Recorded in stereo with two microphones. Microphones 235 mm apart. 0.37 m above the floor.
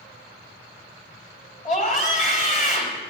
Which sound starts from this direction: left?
A scream, at 1.6 s.